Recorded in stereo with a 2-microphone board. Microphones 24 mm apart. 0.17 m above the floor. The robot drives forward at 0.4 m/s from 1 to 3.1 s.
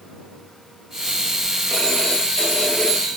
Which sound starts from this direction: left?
A phone ringing, at 1.7 s.